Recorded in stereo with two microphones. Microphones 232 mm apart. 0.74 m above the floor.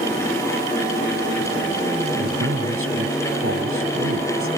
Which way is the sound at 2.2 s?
70° right (ahead or behind).